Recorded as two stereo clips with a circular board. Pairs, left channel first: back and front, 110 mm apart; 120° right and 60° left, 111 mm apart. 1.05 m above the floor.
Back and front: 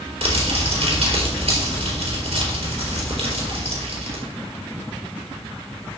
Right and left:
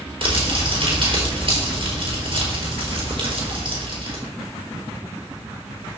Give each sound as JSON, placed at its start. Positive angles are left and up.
{"t": 0.2, "sound": "crumpling", "azimuth_deg": 20, "distance_m": 3.5}